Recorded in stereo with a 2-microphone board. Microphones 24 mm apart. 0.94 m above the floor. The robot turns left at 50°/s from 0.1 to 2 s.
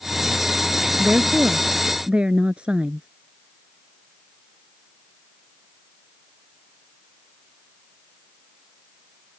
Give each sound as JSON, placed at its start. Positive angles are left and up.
{"t": 1.0, "sound": "a woman speaking", "azimuth_deg": -80}